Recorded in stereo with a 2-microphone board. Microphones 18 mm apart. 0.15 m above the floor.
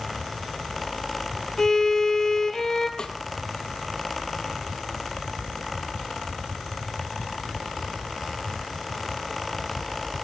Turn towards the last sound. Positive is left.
turn(degrees=45)  # may be behind; listen again after turning